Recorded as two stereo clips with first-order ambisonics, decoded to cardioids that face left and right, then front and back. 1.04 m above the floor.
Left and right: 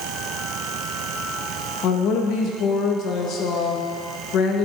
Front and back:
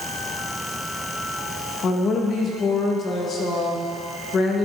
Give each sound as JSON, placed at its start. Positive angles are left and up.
{"t": 1.8, "sound": "a woman speaking", "azimuth_deg": 55, "distance_m": 1.0}